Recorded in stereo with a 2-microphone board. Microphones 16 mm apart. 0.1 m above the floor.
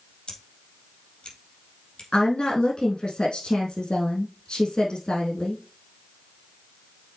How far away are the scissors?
About 4 m.